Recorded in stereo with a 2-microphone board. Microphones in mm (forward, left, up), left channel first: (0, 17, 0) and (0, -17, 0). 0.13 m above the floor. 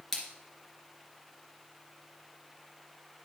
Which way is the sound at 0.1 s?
Centre (ahead or behind).